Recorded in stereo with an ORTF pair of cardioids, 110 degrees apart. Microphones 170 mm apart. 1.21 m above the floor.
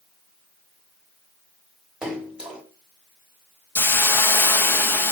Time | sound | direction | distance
2.0 | a splash | 5° right | 3.5 m
3.8 | a hiss | 10° left | 1.2 m